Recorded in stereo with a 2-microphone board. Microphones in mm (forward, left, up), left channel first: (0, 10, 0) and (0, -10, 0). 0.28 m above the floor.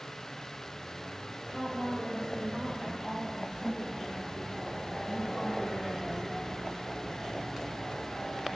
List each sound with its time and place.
1.5 s a woman speaking: 5° right (ahead or behind), 5 m; by 6.2 s 35° right (ahead or behind), 6.5 m